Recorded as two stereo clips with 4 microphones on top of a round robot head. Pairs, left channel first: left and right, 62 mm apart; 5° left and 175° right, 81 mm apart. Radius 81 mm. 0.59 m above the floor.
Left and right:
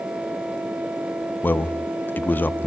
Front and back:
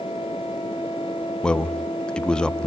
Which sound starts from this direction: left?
A man speaking, at 1.4 s.